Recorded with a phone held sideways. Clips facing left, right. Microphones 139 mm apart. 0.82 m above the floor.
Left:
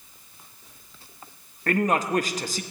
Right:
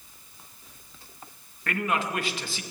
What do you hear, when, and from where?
1.7 s a man speaking: 40° left (ahead or behind), 0.8 m